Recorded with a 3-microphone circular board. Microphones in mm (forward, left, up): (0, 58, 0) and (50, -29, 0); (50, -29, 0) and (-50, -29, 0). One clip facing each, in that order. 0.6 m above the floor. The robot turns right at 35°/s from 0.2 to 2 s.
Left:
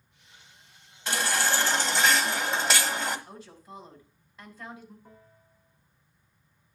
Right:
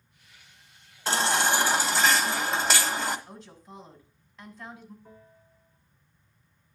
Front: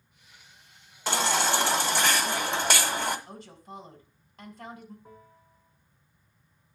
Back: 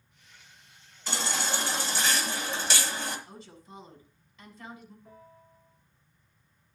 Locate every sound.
1.1 s a baby crying: 5° right, 1.4 m; by 3.2 s 30° left, 1.4 m
3.3 s a woman speaking: 40° left, 3.5 m
5.0 s a bell: 55° left, 6 m